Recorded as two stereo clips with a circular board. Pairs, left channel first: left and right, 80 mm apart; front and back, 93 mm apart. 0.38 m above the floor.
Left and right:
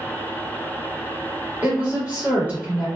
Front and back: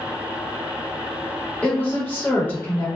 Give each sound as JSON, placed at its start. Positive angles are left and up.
{"t": 1.6, "sound": "a woman speaking", "azimuth_deg": -45, "distance_m": 1.5}